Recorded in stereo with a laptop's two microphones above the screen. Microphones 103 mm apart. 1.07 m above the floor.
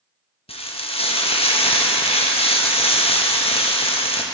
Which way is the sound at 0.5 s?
65° left (ahead or behind).